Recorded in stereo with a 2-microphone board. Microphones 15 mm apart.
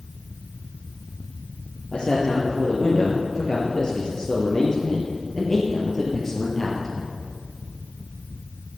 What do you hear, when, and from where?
1.9 s a man speaking: 55° left (ahead or behind), 3 m; by 7.1 s 15° left (ahead or behind), 3.5 m